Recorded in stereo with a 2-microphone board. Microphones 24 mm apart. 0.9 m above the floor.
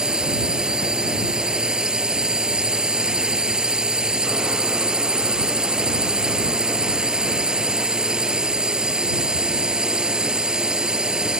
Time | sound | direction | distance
0.0 | a drone | 30° right (ahead or behind) | ?